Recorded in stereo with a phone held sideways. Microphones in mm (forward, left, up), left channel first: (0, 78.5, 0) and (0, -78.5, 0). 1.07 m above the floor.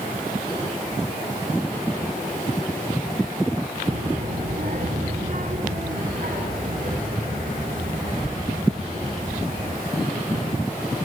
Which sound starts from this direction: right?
A child speaking, at 3.9 s.